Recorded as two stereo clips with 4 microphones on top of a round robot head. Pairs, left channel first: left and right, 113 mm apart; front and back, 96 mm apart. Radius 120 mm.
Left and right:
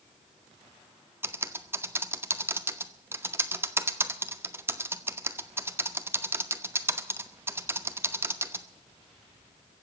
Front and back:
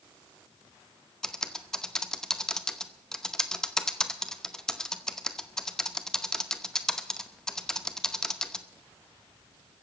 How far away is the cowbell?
No cowbell in this recording.